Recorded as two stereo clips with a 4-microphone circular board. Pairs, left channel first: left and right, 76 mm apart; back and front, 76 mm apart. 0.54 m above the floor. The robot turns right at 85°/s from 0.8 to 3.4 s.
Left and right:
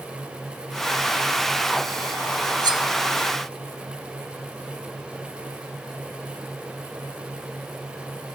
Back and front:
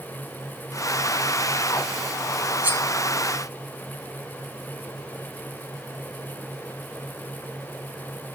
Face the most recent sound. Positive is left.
turn(degrees=-5)